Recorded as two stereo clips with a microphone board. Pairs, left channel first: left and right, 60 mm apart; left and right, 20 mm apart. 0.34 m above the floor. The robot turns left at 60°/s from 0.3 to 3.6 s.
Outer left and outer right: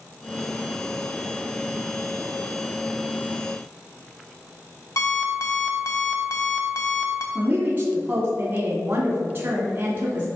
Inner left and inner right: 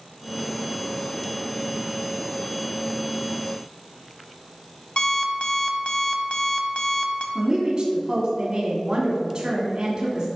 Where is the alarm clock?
60° left (ahead or behind), 1.0 m.